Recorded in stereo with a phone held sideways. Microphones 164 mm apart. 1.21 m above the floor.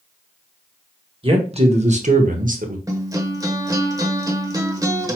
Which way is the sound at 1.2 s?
35° right (ahead or behind).